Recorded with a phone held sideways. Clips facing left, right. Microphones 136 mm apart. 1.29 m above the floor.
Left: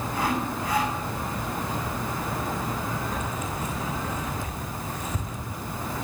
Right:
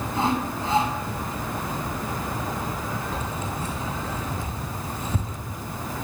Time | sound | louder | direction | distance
0.1 | sawing | right 3 dB | 30° right (ahead or behind) | 6.5 m
3.1 | keys jangling | right 1 dB | 30° right (ahead or behind) | 6.5 m